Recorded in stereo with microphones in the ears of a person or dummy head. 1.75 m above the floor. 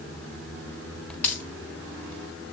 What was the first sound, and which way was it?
A dropped coin, 10° left (ahead or behind).